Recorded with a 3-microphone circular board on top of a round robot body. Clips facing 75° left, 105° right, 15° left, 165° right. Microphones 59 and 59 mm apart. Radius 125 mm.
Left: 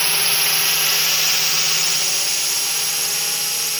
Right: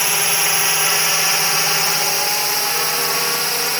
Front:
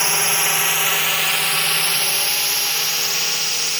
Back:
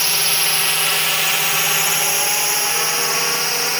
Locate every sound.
0.0 s a drone: 40° right; by 3.8 s 125° right